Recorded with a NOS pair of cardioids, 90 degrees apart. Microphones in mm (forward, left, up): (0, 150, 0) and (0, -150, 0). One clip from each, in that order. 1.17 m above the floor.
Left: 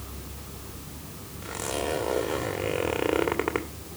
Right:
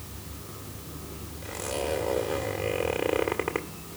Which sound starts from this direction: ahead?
A zipper, at 1.4 s.